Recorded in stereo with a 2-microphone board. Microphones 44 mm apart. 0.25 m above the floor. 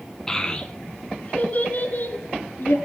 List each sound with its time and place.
0.3 s a child speaking: 10° left (ahead or behind), 1.2 m; by 2.8 s 50° left (ahead or behind), 2.5 m